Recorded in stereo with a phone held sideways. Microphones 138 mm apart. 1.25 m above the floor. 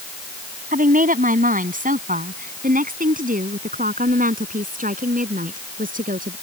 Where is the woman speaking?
80° right.